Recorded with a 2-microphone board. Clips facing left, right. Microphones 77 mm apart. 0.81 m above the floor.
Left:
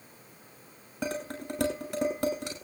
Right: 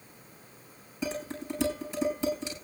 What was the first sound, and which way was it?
Dishes clattering, 65° left (ahead or behind).